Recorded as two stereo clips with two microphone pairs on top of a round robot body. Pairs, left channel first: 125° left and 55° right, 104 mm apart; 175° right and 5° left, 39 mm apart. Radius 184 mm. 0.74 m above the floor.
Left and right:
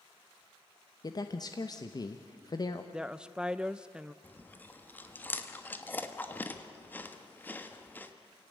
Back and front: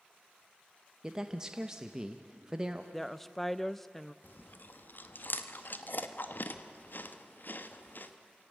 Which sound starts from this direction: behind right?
A woman speaking, at 2.9 s.